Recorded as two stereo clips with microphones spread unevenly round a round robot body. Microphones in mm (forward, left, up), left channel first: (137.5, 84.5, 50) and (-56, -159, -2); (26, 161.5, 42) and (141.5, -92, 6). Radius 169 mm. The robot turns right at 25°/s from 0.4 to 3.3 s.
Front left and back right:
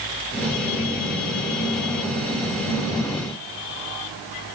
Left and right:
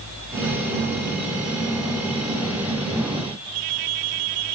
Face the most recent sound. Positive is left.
No sound to turn to.